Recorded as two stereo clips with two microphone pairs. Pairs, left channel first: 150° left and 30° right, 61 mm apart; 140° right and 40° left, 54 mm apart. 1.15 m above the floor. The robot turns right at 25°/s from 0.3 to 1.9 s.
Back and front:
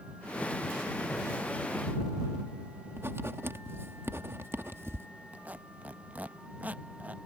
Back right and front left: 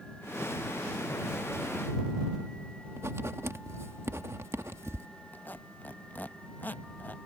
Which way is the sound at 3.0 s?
15° left.